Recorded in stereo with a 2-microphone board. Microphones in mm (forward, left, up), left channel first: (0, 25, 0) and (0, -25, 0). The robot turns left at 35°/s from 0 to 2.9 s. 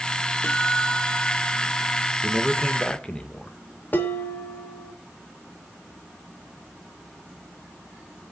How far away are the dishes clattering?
About 1.7 m.